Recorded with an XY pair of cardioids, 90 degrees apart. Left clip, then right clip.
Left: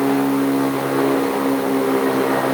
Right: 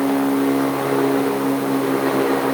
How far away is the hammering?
I don't hear hammering.